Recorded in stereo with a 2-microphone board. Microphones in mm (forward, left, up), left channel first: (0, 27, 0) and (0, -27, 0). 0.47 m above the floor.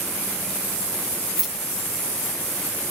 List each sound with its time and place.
1.4 s keys jangling: 10° right (ahead or behind), 1.8 m